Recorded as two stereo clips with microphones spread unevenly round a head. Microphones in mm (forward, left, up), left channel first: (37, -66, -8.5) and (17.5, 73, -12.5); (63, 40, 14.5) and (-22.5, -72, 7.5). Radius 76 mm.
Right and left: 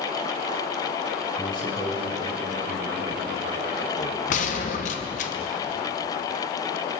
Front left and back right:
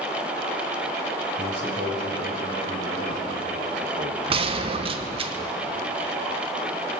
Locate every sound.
1.4 s a man speaking: 145° right, 4.5 m; by 4.2 s 120° right, 2.5 m
4.3 s a gunshot: 95° right, 1.0 m